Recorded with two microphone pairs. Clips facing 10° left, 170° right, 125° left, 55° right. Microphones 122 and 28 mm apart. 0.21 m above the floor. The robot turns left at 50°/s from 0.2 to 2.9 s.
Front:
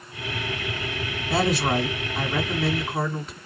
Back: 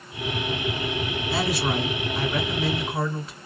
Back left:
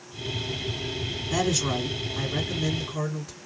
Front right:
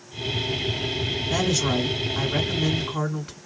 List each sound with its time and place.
1.3 s a woman speaking: 10° right, 2 m; by 3.4 s 90° right, 2 m